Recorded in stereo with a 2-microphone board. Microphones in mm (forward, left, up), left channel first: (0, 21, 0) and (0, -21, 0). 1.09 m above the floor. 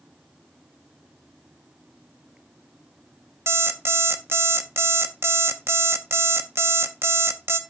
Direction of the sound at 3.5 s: 65° right (ahead or behind).